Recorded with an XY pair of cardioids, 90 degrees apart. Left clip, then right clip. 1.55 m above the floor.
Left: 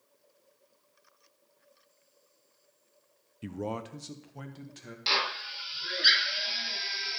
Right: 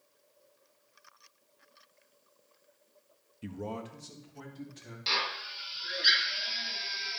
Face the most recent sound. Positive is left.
turn(degrees=35)